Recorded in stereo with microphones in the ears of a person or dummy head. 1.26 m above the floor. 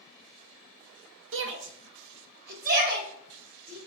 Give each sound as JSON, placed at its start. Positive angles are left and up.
{"t": 1.3, "sound": "a shout", "side_deg": -65, "distance_m": 0.5}